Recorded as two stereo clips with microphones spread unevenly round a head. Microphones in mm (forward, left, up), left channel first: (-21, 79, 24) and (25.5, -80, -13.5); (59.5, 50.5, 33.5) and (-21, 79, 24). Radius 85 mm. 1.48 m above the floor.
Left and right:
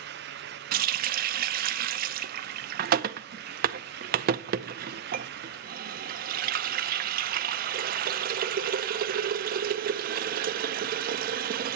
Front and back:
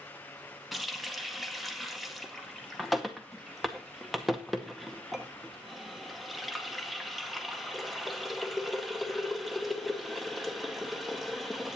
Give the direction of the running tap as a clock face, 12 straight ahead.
3 o'clock.